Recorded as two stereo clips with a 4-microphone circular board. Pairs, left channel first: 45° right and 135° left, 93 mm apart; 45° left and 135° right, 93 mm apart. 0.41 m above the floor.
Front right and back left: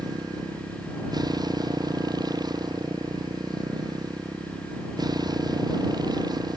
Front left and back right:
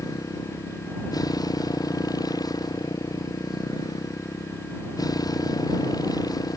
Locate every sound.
0.0 s a motorcycle: 95° left